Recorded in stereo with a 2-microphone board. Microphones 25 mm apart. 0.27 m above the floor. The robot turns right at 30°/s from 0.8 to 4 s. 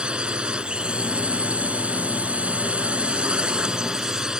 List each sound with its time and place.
0.0 s a drone: 135° right; by 4.4 s 35° right